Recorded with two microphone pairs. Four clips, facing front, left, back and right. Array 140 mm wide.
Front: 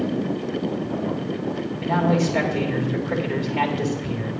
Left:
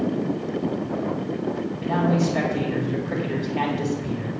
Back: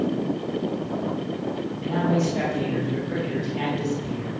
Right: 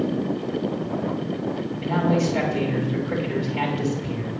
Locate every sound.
1.8 s a man speaking: 20° left, 3 m